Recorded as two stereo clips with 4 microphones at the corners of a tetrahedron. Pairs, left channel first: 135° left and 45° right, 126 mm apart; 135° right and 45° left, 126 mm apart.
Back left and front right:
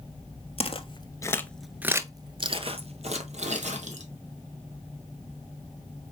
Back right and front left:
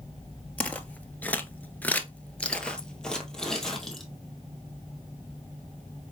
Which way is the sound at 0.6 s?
150° left.